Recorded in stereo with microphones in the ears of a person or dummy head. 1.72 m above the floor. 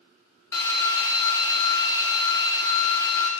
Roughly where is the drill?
Centre.